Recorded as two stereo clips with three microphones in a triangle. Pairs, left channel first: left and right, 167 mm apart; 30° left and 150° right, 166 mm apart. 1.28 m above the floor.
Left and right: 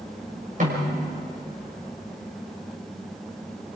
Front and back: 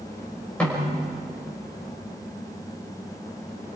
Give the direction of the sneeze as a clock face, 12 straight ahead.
I don't hear a sneeze.